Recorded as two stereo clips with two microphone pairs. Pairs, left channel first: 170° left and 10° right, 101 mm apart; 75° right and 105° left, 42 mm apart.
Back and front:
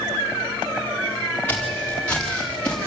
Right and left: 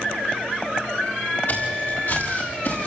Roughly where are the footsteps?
Behind right.